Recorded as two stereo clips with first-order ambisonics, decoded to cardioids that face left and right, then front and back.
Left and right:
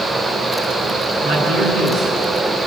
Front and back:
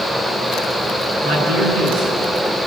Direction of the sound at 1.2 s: 140° right.